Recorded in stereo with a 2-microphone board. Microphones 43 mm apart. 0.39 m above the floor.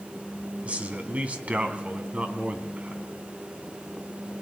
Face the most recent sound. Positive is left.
turn(degrees=-35)  # may be behind; listen again after turning